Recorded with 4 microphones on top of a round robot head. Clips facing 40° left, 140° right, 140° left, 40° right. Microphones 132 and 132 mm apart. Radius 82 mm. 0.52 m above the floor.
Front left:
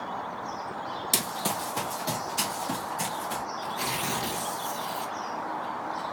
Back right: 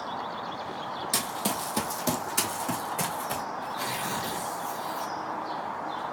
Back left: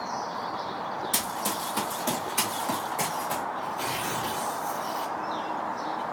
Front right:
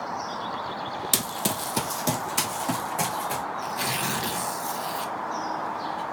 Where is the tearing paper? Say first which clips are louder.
Front left 1 dB, front right 1 dB; 35° right, 1.2 m.